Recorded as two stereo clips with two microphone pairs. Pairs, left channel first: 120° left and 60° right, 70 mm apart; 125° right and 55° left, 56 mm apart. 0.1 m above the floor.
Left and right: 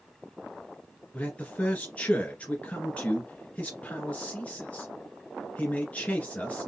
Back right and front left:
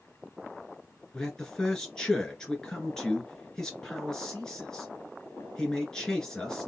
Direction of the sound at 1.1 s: 170° left.